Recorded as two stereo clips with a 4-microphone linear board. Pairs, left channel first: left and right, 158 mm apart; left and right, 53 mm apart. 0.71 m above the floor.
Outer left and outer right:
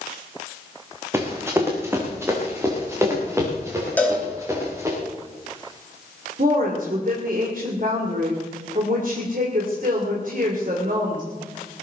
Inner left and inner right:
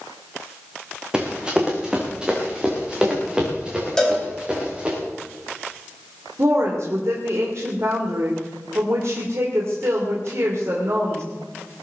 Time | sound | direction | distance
1.1 | running footsteps | 15° right (ahead or behind) | 3.5 m
4.0 | a cowbell | 10° left (ahead or behind) | 4 m
6.4 | a woman speaking | 60° right (ahead or behind) | 2.5 m